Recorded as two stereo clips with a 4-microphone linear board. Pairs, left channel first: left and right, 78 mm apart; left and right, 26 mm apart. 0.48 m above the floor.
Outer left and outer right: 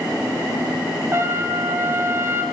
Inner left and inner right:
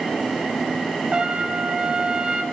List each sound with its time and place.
1.1 s a trumpet: 35° right (ahead or behind), 1.8 m